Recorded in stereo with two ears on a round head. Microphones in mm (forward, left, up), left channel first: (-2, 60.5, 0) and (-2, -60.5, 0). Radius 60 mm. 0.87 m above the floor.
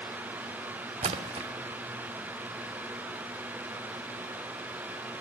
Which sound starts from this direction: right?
A splash, at 1.0 s.